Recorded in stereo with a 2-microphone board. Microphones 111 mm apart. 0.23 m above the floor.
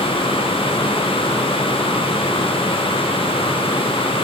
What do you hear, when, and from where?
Only background noise.